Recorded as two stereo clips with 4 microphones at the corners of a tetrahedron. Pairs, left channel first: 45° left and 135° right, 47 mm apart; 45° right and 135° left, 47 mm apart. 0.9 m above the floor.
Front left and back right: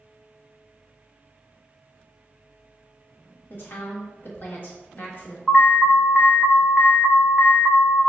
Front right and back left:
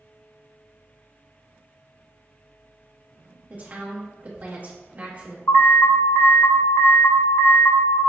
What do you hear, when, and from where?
3.5 s a woman speaking: 80° left, 1.5 m
5.5 s an alarm: 45° right, 0.8 m